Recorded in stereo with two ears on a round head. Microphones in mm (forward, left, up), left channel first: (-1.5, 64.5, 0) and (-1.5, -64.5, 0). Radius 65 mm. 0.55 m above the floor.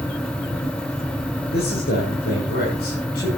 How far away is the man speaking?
About 8 m.